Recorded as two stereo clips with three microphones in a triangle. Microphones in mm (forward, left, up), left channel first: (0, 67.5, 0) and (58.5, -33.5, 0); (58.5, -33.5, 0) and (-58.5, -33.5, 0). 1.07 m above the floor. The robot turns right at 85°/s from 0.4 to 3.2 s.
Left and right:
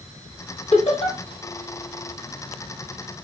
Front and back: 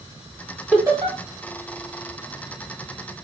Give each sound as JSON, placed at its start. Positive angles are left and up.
{"t": 0.7, "sound": "laughter", "azimuth_deg": 110, "distance_m": 2.5}